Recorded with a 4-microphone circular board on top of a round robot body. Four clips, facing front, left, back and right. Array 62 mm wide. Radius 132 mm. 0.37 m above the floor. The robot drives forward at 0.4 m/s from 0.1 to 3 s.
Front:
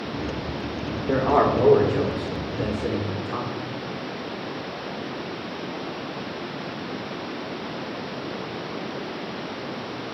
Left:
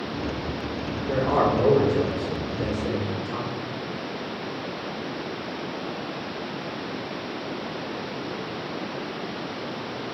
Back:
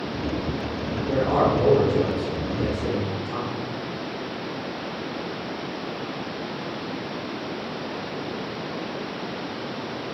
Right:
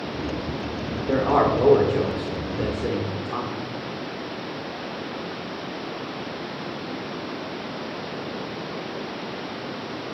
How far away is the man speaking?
About 2 m.